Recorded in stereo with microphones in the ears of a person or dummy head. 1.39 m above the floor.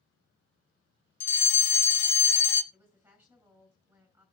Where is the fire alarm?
15° left (ahead or behind), 1.0 m.